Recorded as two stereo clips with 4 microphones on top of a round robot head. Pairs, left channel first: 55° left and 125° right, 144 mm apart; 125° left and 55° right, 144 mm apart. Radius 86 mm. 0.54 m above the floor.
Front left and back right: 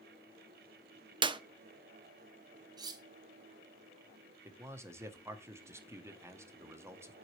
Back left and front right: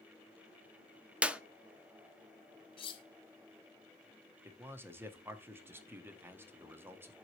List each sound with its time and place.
1.2 s a clap: 130° right, 0.5 m
2.8 s cutlery clinking: 175° left, 0.7 m
4.5 s a man speaking: 100° right, 0.9 m